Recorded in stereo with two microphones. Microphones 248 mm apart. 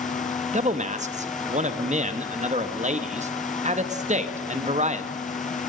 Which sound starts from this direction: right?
A man speaking, at 0.5 s.